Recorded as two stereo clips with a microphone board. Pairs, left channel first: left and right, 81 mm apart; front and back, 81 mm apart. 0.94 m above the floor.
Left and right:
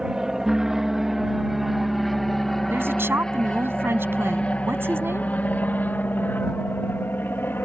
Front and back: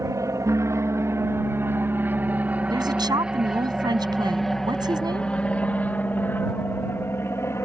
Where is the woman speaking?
150° right.